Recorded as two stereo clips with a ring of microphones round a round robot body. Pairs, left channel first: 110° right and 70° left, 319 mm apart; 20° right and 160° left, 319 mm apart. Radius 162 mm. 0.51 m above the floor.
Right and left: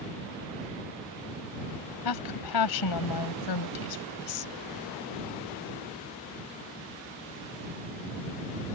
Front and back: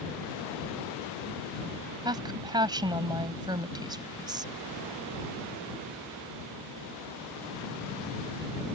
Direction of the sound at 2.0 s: 125° right.